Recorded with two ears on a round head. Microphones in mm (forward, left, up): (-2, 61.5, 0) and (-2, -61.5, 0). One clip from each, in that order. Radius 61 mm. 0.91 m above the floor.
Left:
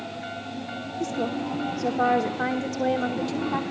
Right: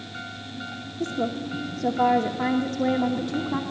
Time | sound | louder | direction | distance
1.0 | a woman speaking | right 1 dB | 20° left (ahead or behind) | 1.0 m